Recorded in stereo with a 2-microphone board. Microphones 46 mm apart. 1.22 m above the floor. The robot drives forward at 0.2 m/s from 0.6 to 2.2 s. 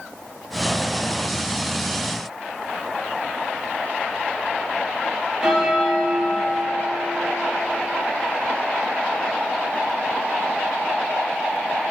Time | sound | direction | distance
5.4 | a bell | 10° right (ahead or behind) | 0.7 m